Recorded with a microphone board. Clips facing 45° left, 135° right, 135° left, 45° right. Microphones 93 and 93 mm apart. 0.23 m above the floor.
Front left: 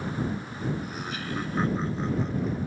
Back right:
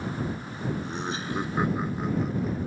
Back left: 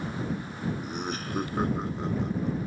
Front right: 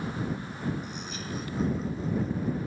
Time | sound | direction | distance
0.8 | laughter | 165° left | ?